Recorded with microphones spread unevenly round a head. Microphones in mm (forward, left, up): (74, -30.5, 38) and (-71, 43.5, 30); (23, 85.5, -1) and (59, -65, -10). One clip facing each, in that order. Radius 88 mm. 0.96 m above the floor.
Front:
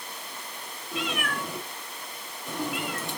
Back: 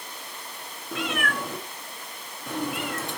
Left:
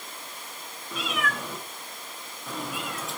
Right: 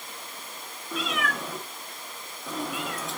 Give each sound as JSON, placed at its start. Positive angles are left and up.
{"t": 0.9, "sound": "a cat meowing", "azimuth_deg": -175, "distance_m": 1.1}